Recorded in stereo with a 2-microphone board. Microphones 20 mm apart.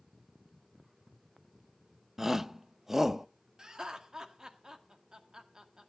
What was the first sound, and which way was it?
A shout, 20° right (ahead or behind).